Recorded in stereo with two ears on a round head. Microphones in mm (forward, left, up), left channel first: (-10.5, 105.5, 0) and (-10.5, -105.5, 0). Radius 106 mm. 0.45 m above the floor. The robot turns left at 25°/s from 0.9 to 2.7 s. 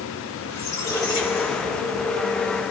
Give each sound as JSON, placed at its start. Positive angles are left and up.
{"t": 0.5, "sound": "a squeak", "azimuth_deg": 165, "distance_m": 5.0}